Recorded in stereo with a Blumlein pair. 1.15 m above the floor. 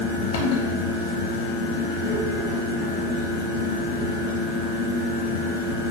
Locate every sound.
0.0 s a fan: 45° left, 0.9 m